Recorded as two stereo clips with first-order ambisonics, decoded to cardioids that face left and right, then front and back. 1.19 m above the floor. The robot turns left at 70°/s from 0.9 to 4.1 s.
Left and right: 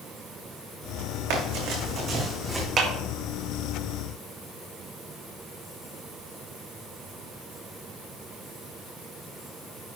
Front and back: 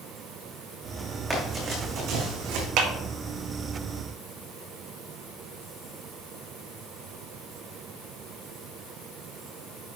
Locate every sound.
1.3 s running footsteps: 100° right, 3.5 m; by 2.7 s straight behind, 3 m
2.8 s a clap: 145° right, 1.9 m; by 2.9 s 155° right, 1.9 m